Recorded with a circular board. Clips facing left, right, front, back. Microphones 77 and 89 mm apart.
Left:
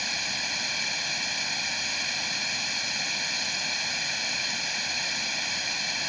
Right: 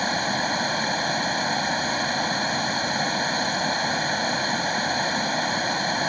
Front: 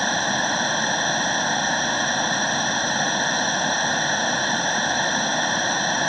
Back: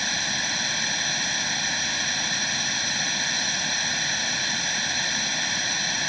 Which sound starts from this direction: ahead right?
Running water, at 0.0 s.